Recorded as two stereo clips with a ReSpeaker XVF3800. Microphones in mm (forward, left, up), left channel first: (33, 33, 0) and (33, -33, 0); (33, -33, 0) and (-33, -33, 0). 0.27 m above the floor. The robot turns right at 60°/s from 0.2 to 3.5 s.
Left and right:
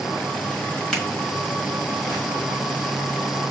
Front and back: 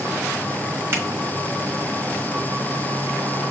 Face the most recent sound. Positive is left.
turn(degrees=-40)